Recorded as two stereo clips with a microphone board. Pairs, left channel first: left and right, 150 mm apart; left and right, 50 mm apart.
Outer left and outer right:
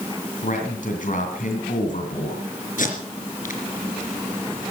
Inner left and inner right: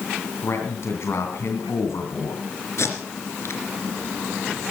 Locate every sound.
0.4 s a man speaking: 60° left (ahead or behind), 2 m
2.8 s tape being pulled: 60° left (ahead or behind), 3 m